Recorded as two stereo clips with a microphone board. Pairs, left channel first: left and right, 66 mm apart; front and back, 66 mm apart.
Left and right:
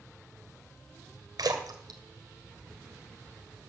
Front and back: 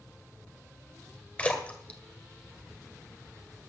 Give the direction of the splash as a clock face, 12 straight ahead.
2 o'clock.